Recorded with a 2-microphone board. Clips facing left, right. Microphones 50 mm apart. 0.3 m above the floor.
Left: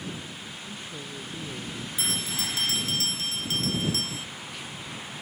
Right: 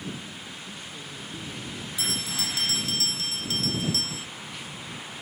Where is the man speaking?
25° left (ahead or behind); by 1.9 s 20° left (ahead or behind).